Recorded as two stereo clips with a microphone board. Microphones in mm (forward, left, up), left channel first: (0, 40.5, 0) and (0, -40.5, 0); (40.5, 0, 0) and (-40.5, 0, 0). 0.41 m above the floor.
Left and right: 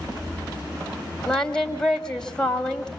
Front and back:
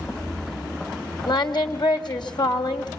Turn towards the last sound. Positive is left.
turn(degrees=5)